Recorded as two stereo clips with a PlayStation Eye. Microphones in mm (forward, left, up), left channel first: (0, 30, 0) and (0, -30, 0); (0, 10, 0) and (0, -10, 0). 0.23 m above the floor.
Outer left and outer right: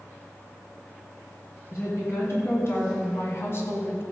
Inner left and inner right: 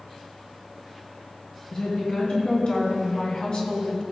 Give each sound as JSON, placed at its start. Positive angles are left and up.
{"t": 1.7, "sound": "a woman speaking", "side_deg": 45, "distance_m": 2.5}